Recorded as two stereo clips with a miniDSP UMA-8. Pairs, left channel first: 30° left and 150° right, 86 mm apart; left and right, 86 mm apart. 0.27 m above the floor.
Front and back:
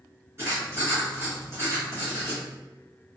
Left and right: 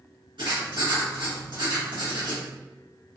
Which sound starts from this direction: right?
Writing, at 0.4 s.